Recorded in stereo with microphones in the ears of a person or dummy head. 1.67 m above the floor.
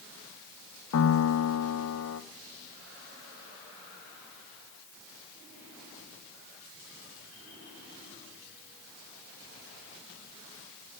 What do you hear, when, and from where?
0.9 s a piano: 75° left (ahead or behind), 0.9 m